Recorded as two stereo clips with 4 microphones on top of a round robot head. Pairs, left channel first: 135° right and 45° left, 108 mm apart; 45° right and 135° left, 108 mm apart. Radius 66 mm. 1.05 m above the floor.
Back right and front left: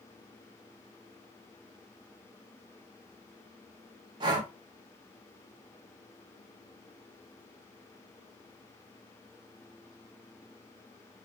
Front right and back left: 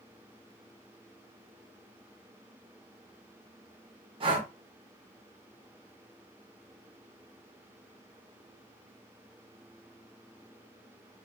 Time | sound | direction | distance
4.2 | breathing | 95° left | 0.7 m